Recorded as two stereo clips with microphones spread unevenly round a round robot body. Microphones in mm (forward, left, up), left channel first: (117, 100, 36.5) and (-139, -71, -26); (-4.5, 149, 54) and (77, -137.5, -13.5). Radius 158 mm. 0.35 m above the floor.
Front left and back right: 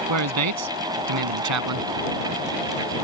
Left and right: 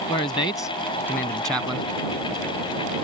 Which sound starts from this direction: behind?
A man speaking, at 0.1 s.